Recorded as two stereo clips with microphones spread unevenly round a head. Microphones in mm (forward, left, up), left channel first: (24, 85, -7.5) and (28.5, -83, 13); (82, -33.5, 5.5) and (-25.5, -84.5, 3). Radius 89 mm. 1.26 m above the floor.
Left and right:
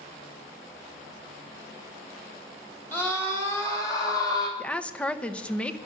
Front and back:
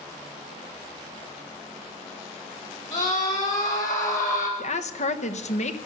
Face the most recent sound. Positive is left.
turn(degrees=10)